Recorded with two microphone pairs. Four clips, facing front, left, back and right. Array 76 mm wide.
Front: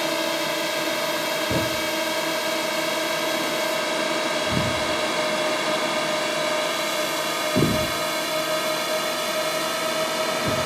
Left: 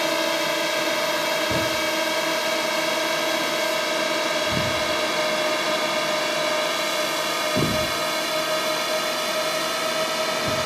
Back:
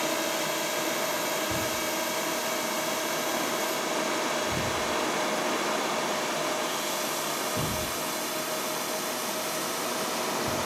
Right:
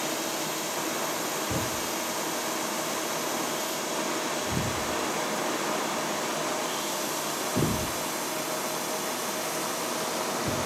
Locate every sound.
0.0 s a drone: 75° left; by 10.7 s 50° left
1.5 s a thud: 15° left